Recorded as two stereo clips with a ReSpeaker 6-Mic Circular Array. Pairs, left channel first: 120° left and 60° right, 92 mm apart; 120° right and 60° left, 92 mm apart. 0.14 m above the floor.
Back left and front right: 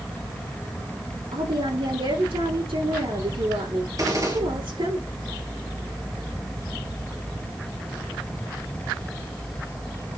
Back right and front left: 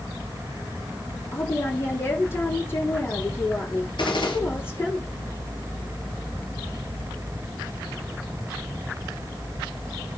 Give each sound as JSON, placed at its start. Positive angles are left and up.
{"t": 1.3, "sound": "a woman speaking", "azimuth_deg": -55, "distance_m": 8.5}
{"t": 4.0, "sound": "a gunshot", "azimuth_deg": -105, "distance_m": 3.0}